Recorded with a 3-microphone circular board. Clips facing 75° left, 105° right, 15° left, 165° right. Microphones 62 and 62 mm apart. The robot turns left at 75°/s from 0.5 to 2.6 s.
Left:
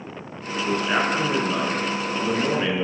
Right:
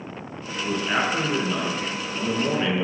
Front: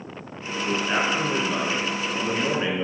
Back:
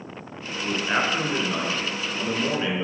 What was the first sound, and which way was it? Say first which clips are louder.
A man speaking: left 2 dB, even; 170° left.